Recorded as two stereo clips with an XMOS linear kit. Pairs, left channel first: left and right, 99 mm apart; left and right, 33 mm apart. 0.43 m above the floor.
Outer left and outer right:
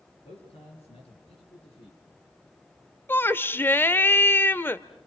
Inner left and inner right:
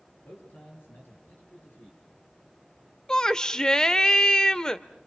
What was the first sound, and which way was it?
A man speaking, 80° left.